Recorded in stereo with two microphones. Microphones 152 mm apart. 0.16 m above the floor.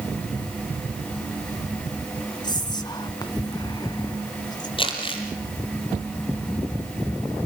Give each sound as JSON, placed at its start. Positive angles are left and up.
{"t": 2.4, "sound": "whispering", "side_deg": 30, "distance_m": 1.3}
{"t": 4.8, "sound": "crumpling", "side_deg": 35, "distance_m": 5.5}